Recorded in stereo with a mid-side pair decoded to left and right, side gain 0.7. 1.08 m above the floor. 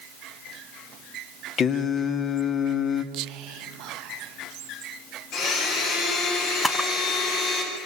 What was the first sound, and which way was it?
Singing, 40° left.